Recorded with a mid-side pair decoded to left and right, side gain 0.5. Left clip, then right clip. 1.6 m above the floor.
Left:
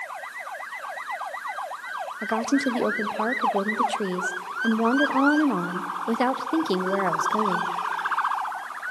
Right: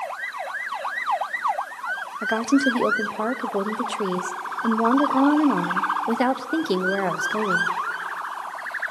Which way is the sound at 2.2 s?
5° right.